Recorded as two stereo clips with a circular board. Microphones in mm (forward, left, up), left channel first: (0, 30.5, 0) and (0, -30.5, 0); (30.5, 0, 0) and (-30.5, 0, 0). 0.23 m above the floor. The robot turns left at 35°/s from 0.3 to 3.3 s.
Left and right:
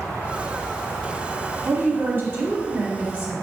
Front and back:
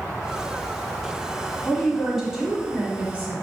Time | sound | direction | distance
1.6 | a woman speaking | 80° right | 1.4 m